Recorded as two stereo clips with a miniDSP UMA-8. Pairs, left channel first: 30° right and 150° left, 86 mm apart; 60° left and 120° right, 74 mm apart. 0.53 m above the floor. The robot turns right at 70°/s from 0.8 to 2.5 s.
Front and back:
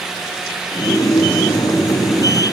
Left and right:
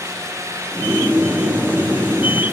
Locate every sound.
Only background noise.